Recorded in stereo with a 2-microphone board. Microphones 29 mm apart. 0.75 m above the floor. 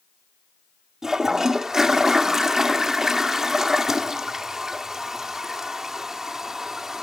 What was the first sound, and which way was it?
A toilet flushing, 20° right (ahead or behind).